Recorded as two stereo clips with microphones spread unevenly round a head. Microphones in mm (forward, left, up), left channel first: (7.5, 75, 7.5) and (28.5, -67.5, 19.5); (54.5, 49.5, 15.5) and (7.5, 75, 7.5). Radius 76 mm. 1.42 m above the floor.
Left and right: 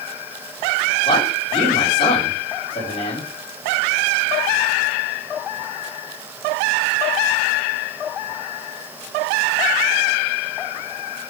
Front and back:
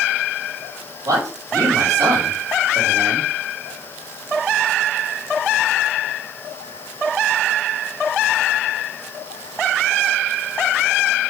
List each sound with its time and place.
1.1 s a man speaking: 145° left, 3.5 m